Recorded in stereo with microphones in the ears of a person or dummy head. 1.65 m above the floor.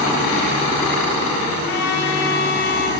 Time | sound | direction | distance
1.6 | a trumpet | 75° left (ahead or behind) | 7.5 m